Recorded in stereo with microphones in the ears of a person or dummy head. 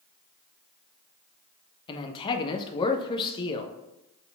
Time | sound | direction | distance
1.9 | a man speaking | 30° left (ahead or behind) | 0.9 m